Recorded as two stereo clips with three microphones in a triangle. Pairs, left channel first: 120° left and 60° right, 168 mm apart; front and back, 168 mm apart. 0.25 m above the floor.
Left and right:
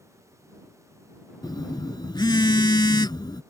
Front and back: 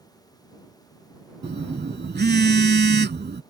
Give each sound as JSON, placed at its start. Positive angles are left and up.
{"t": 1.4, "sound": "a phone buzzing", "azimuth_deg": 180}